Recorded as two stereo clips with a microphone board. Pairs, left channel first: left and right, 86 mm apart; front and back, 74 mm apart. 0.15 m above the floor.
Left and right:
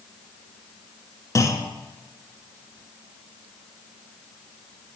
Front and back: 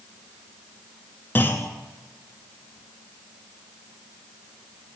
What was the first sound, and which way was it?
A clunk, 55° left.